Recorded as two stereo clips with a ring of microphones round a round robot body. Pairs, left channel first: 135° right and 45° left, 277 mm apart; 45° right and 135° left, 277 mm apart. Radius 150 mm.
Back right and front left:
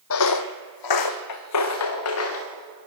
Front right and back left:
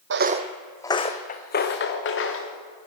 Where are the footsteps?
Straight behind, 1.1 m; by 2.5 s 90° right, 3.5 m.